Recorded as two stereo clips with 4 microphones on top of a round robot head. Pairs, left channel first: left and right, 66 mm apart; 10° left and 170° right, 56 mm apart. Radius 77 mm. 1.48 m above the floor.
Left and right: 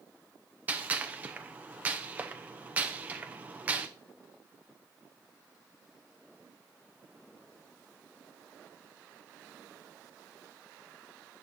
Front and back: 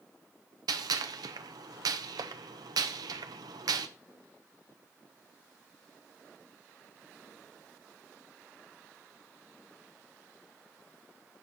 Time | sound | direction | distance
0.7 | a gunshot | 160° right | 0.6 m